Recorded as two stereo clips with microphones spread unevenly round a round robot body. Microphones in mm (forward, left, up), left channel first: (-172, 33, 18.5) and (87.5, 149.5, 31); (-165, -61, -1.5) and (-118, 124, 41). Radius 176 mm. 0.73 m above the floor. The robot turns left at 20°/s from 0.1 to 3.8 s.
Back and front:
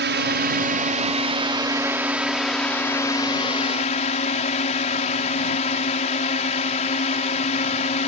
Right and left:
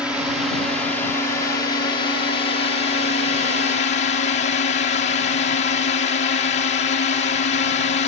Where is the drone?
20° right; by 8.1 s 95° right.